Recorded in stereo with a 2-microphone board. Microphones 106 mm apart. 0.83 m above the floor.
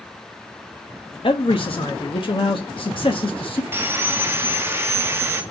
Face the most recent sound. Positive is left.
turn(degrees=-20)  # may be behind; listen again after turning